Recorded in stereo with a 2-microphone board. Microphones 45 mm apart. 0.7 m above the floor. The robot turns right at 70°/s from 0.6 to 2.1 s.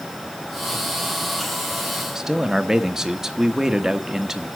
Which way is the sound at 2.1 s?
10° right (ahead or behind).